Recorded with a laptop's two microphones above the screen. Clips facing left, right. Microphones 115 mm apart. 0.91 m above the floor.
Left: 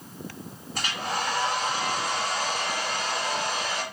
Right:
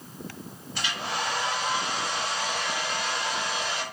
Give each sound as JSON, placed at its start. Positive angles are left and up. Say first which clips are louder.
{"t": 0.8, "sound": "a hair dryer", "louder": "left 1 dB", "side_deg": 45, "distance_m": 1.1}